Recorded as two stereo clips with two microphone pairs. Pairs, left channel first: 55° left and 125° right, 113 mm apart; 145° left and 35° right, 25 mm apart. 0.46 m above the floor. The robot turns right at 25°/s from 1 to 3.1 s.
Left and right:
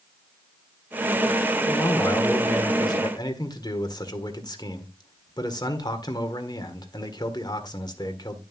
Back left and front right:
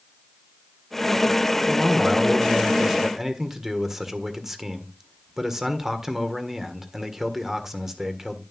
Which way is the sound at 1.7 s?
5° right.